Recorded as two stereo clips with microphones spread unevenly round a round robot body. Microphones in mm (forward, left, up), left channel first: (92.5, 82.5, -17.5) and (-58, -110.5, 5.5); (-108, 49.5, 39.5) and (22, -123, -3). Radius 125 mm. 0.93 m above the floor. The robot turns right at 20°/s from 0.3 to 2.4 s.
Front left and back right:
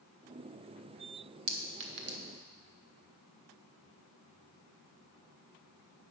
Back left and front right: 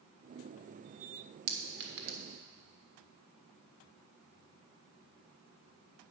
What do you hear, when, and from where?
1.5 s a clink: 95° right, 1.4 m; by 2.2 s 80° right, 1.4 m